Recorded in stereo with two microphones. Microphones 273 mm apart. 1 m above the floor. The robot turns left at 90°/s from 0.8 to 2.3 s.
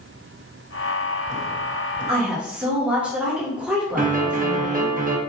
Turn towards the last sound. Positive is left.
turn(degrees=-30)  # may be behind; listen again after turning